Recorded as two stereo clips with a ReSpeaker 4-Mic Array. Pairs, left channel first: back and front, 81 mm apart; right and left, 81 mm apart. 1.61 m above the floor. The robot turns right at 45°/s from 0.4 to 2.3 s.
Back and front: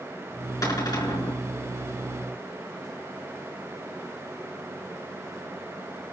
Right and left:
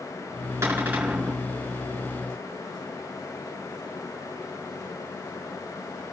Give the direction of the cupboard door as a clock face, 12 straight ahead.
7 o'clock.